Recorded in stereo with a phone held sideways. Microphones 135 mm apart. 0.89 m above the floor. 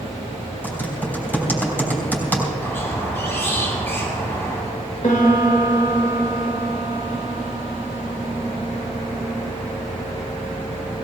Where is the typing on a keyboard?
15° left (ahead or behind), 4 m.